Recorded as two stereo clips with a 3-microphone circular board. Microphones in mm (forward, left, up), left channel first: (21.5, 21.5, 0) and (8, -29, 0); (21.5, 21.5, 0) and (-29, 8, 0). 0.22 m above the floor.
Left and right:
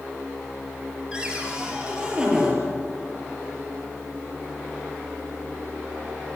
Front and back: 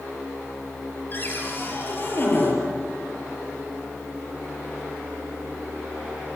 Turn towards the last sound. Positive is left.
turn(degrees=-35)